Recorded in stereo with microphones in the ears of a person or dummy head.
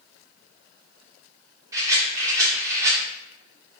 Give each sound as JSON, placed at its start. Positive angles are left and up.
{"t": 1.7, "sound": "a rattle", "side_deg": -15, "distance_m": 2.5}